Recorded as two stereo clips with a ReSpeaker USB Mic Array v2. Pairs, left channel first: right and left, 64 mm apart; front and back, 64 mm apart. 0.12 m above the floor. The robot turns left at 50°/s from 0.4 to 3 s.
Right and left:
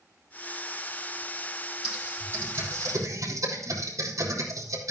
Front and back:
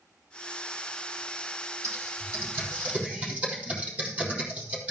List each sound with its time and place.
1.8 s typing on a keyboard: 170° left, 4 m; by 4.9 s 110° left, 4 m